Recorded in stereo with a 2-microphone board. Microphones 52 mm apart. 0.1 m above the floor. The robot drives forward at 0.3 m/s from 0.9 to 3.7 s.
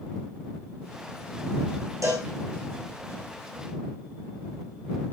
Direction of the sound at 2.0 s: 75° right (ahead or behind).